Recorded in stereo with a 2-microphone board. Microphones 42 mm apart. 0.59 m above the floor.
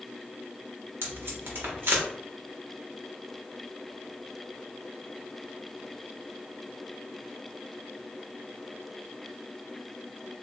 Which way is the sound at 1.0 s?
60° right (ahead or behind).